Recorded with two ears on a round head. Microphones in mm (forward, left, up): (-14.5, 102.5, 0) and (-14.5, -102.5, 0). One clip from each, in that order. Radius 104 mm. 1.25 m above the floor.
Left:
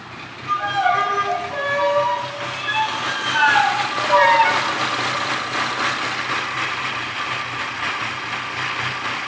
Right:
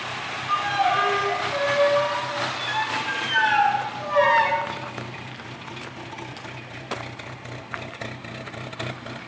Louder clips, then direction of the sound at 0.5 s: Left 3 dB; 35° left (ahead or behind).